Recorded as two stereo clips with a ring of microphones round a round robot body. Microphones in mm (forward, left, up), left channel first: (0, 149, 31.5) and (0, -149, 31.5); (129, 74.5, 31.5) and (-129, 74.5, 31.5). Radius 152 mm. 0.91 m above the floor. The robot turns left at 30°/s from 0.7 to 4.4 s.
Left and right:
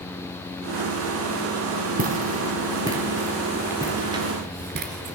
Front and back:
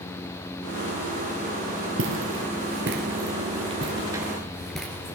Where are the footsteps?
145° right, 1.4 m; by 5.2 s 75° right, 1.0 m.